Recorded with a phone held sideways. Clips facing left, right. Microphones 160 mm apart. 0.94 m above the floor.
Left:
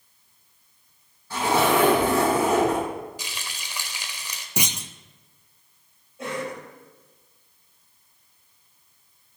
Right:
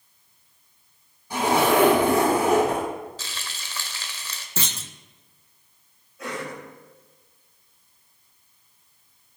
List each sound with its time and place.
1.3 s a zipper: 15° right (ahead or behind), 5 m
3.2 s frying: 15° left (ahead or behind), 1.3 m
4.6 s a clunk: 15° left (ahead or behind), 0.5 m
6.2 s a cough: 30° left (ahead or behind), 6 m